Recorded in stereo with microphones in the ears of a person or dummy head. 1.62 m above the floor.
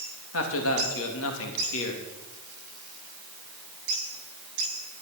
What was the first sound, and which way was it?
A man speaking, 85° left.